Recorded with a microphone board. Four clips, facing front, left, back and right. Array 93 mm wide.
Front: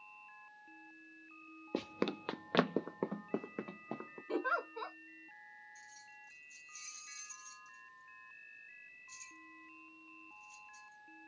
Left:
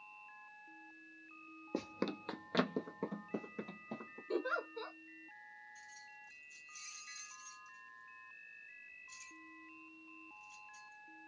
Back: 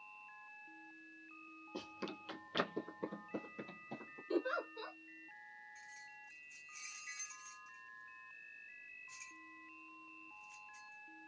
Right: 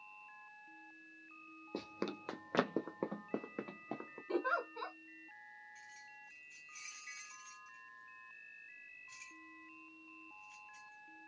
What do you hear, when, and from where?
1.7 s running footsteps: 15° left, 0.7 m; by 4.2 s 45° right, 2 m
4.3 s a giggle: 40° right, 2.5 m
5.8 s keys jangling: 125° right, 1.9 m